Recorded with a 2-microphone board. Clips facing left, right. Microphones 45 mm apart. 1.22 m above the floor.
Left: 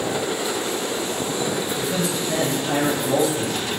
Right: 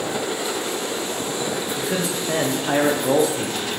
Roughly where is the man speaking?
Right.